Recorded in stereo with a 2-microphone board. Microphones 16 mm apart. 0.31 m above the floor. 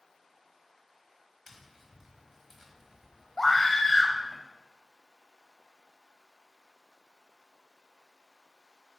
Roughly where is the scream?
Centre.